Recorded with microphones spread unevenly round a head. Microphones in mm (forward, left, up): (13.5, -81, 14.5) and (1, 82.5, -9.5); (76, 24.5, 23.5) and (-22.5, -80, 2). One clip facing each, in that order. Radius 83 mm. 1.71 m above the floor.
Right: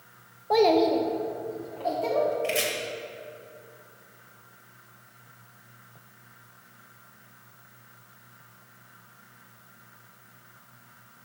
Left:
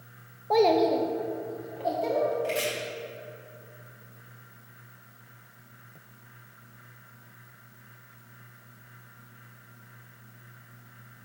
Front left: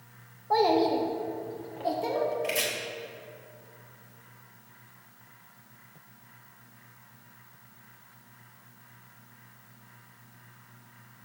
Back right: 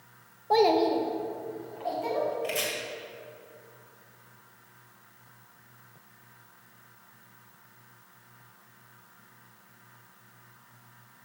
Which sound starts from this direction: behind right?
A child speaking, at 0.5 s.